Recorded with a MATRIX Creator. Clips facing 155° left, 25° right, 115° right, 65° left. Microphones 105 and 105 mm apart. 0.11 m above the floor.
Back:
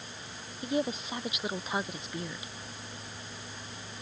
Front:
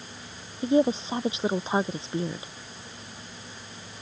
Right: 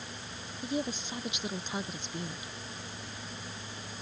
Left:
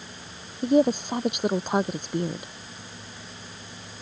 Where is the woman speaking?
35° left.